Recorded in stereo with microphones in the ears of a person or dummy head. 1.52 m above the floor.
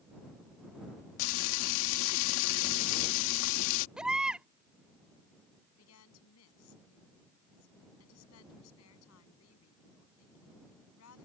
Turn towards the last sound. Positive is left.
turn(degrees=80)